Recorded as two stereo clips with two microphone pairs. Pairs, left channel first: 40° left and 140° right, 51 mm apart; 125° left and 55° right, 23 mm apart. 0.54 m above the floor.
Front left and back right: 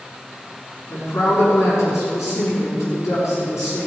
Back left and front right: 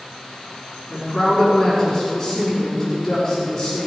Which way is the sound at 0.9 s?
55° left.